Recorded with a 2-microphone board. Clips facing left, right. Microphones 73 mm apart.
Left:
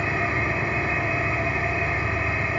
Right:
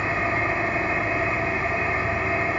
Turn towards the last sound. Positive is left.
turn(degrees=-40)  # may be behind; listen again after turning